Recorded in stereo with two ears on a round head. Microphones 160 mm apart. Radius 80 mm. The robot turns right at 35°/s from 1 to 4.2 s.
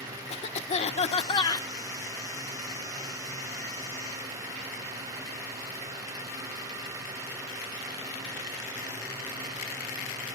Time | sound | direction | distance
0.3 | a cough | 40° left (ahead or behind) | 1.3 m